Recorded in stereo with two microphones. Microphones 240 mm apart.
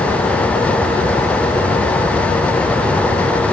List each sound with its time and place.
Only background noise.